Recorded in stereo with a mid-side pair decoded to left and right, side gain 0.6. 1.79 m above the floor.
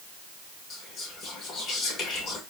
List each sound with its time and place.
0.7 s whispering: 50° left, 3 m